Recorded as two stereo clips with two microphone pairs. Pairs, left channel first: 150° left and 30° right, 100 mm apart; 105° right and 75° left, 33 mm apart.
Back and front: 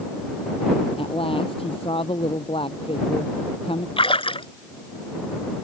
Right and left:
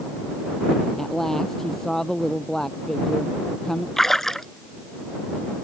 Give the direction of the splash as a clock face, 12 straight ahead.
6 o'clock.